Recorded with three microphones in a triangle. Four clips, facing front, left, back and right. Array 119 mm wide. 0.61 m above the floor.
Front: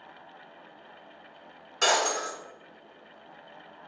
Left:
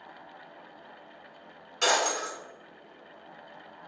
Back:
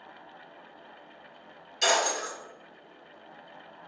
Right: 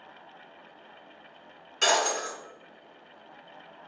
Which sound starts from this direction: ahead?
Breaking glass, at 1.8 s.